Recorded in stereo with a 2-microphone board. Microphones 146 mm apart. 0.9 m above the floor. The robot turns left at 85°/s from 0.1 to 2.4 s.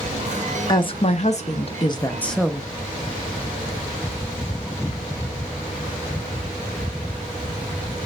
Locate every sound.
0.7 s a woman speaking: 145° left, 0.7 m; by 2.7 s straight ahead, 0.7 m